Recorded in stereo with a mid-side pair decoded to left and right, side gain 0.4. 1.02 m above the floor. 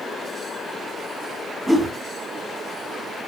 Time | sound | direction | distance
1.7 | a whoosh | 10° right | 1.1 m